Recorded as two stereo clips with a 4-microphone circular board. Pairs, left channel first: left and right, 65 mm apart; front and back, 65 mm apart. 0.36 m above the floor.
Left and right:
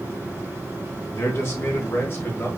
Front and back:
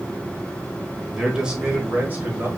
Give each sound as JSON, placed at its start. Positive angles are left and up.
{"t": 1.1, "sound": "a man speaking", "azimuth_deg": 95, "distance_m": 1.4}